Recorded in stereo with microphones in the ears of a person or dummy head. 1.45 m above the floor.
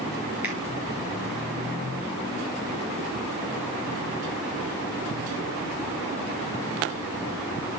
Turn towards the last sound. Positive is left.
turn(degrees=-10)  # may be behind; listen again after turning